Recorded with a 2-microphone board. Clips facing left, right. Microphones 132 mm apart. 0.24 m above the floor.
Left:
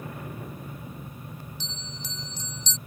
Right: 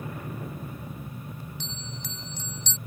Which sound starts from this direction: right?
A bell, at 1.6 s.